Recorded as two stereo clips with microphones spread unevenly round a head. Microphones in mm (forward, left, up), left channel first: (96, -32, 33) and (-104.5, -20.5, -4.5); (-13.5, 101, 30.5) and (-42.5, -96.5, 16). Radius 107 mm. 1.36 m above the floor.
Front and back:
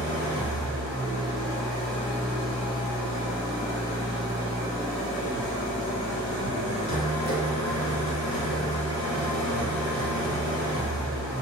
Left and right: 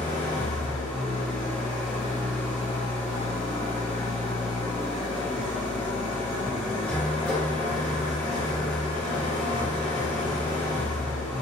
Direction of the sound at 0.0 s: Straight ahead.